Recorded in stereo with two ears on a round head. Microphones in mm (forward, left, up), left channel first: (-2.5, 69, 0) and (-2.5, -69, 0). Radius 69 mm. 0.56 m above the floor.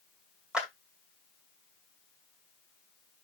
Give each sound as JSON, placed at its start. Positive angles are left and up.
{"t": 0.5, "sound": "a clap", "side_deg": -5, "distance_m": 2.5}